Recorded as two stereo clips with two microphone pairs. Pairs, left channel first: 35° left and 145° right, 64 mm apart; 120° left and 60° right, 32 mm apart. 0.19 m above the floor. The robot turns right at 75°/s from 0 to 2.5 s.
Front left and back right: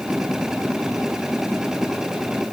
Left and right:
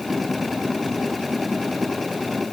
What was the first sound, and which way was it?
Only background noise.